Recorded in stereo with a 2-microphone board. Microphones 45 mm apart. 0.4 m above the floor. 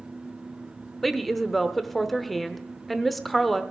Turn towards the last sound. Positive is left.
turn(degrees=0)  # may be behind; listen again after turning